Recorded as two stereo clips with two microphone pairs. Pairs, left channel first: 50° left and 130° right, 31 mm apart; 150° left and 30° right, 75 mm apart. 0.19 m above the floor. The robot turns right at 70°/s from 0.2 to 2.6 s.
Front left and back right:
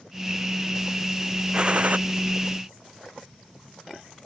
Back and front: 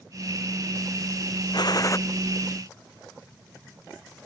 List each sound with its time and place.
1.5 s a gunshot: 170° left; by 2.0 s 160° right